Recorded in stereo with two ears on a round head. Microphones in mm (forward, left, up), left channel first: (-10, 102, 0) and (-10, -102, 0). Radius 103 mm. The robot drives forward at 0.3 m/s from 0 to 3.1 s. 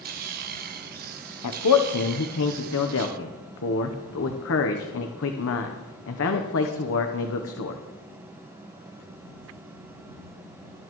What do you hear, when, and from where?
1.4 s a man speaking: 85° left, 0.9 m; by 7.8 s 65° left (ahead or behind), 1.0 m